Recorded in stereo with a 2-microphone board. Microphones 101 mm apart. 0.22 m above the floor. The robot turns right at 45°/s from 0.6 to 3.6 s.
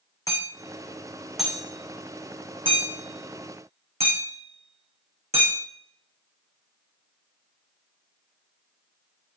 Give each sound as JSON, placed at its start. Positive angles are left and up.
{"t": 0.3, "sound": "hammering", "side_deg": 35, "distance_m": 4.0}